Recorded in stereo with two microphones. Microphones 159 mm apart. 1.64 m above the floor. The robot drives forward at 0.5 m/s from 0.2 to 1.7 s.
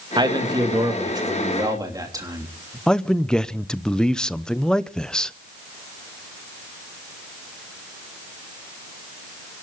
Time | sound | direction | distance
0.2 | a man speaking | 30° right (ahead or behind) | 2.5 m
2.9 | a man speaking | 5° left (ahead or behind) | 0.7 m